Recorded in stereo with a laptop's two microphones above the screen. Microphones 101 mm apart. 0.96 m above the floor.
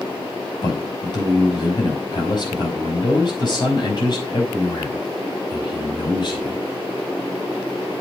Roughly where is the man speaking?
Left.